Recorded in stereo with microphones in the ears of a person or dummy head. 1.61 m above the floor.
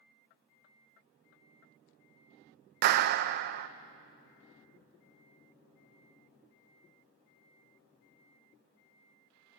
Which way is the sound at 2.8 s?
55° right (ahead or behind).